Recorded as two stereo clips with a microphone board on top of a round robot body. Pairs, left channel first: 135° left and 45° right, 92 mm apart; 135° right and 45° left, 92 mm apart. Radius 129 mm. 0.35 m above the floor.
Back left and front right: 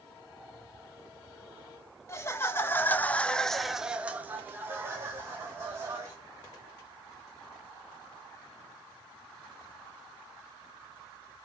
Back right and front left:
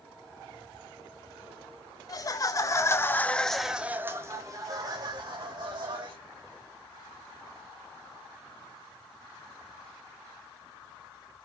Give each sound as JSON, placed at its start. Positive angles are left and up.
{"t": 2.1, "sound": "laughter", "azimuth_deg": -170, "distance_m": 2.5}